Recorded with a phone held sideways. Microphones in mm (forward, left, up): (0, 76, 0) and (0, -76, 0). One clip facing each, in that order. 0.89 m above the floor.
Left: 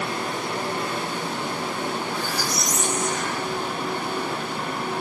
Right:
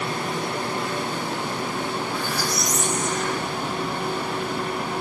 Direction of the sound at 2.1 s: 55° right (ahead or behind).